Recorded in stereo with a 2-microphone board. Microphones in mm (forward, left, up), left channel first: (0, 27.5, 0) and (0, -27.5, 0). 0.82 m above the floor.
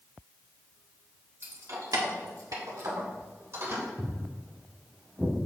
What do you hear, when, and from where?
1.4 s keys jangling: 45° right (ahead or behind), 1.6 m
4.0 s footsteps: 30° right (ahead or behind), 2.5 m; by 5.3 s centre (ahead or behind), 3 m